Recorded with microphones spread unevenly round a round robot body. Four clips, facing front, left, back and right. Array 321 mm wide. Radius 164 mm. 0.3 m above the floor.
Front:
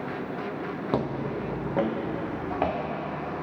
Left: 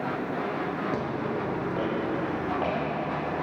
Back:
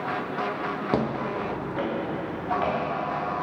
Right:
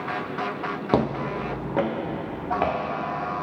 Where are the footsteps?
115° right, 0.7 m; by 2.8 s 60° right, 2 m.